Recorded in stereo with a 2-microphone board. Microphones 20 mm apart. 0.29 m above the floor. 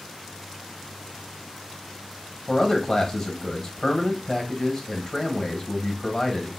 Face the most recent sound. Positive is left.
turn(degrees=30)  # may be behind; listen again after turning